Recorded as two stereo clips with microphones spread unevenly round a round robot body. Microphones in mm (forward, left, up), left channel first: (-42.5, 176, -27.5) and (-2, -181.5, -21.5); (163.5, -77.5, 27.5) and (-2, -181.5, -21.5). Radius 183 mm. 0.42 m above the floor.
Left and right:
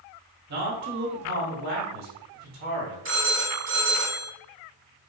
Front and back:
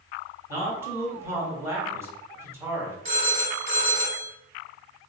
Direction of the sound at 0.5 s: 95° right.